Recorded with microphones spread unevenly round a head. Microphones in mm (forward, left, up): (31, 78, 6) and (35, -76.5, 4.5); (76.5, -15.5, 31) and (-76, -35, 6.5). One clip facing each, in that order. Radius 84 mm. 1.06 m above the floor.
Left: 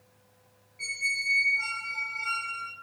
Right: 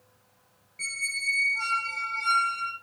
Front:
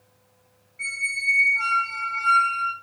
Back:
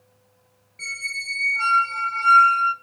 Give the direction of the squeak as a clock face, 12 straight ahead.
4 o'clock.